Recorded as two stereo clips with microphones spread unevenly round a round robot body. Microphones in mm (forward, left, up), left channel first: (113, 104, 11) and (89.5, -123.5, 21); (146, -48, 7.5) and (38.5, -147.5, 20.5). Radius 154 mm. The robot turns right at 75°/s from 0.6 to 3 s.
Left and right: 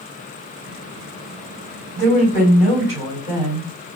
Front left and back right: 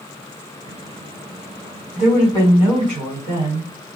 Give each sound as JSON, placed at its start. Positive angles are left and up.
{"t": 1.9, "sound": "a woman speaking", "azimuth_deg": 125, "distance_m": 1.6}